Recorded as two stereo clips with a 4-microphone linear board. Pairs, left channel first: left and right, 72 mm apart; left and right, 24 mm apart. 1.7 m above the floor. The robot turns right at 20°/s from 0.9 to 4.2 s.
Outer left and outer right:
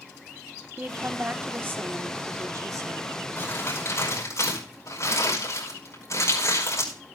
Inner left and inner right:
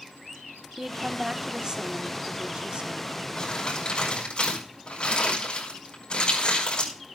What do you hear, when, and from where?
0.8 s a woman speaking: 155° right, 1.1 m; by 3.3 s 105° right, 1.1 m
3.4 s crumpling: 35° left (ahead or behind), 5 m; by 6.9 s 50° left (ahead or behind), 5 m